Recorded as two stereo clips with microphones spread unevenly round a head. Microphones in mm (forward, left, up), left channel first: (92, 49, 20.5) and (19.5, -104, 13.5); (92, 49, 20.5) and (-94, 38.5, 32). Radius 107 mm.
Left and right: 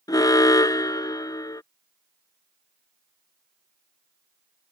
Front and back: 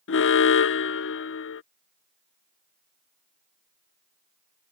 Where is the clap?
I don't hear a clap.